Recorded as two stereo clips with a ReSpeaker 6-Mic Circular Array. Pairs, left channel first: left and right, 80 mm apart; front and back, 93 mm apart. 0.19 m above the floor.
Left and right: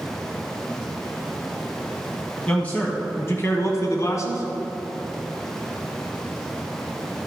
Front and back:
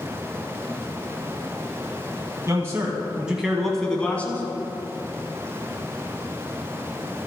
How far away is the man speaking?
About 1.2 m.